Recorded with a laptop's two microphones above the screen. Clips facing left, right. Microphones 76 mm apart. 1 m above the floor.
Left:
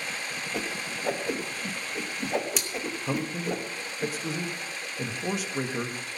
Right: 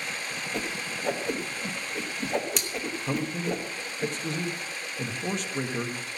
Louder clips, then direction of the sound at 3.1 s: Right 1 dB; 5° left (ahead or behind).